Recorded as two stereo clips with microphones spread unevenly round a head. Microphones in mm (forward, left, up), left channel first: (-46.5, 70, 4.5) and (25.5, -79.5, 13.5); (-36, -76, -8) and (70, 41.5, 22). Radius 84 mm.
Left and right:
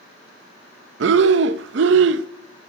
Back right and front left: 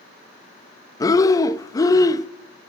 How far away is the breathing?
About 0.5 m.